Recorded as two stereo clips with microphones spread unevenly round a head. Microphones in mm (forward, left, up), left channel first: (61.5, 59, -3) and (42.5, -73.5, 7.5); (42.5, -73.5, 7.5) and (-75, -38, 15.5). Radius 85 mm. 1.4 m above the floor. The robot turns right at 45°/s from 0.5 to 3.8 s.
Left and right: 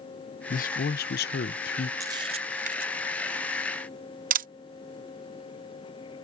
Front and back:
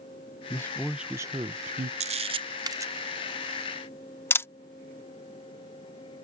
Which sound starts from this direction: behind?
A camera shutter, at 2.0 s.